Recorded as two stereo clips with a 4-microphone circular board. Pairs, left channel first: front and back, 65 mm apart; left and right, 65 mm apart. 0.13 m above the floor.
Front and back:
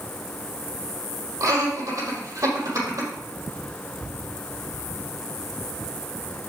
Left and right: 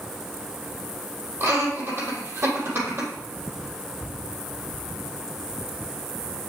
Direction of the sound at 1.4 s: 140° right.